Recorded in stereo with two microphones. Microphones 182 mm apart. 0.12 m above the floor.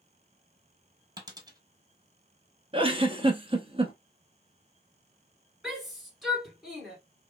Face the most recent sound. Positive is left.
turn(degrees=0)  # may be behind; listen again after turning